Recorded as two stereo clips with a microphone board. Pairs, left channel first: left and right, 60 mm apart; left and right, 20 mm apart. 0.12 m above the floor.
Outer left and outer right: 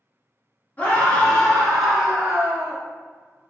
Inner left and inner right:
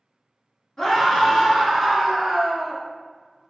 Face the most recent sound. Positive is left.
turn(degrees=-20)  # may be behind; listen again after turning